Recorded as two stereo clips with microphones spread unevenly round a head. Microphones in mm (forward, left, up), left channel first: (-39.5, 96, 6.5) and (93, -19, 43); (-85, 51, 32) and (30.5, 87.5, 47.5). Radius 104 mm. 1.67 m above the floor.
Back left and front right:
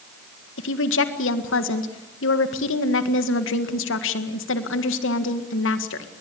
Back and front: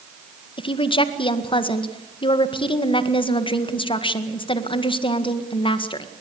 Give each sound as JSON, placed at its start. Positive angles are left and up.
{"t": 0.6, "sound": "a woman speaking", "azimuth_deg": 155, "distance_m": 1.8}